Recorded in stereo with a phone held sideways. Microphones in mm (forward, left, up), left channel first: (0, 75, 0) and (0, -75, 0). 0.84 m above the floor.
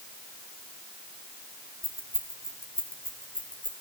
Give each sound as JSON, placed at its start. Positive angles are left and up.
{"t": 1.8, "sound": "keys jangling", "side_deg": 75, "distance_m": 4.0}